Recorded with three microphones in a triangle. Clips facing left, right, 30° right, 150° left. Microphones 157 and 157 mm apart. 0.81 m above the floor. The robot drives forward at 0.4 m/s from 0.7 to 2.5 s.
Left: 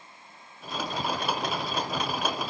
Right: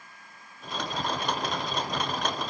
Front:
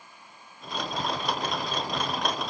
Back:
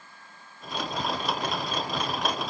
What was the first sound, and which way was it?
Only background noise.